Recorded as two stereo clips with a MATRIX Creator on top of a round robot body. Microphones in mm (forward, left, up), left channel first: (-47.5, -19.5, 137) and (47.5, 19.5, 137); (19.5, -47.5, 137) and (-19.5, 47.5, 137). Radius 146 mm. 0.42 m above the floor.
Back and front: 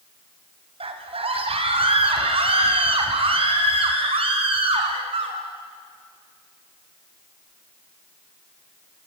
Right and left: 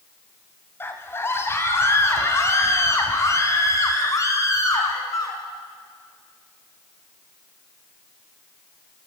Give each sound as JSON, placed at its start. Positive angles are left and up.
{"t": 0.8, "sound": "a scream", "azimuth_deg": 0, "distance_m": 4.0}